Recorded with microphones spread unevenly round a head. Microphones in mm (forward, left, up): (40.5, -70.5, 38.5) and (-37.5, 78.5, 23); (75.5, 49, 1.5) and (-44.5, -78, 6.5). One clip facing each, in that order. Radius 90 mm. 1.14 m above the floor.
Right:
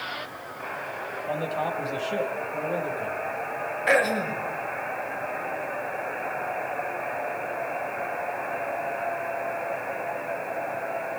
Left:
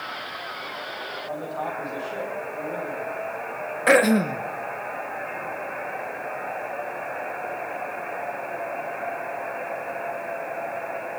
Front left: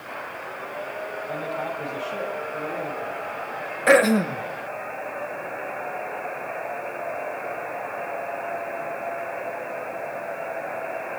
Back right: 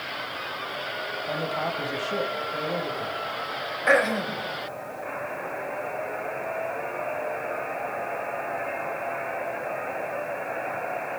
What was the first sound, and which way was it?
A man speaking, 120° right.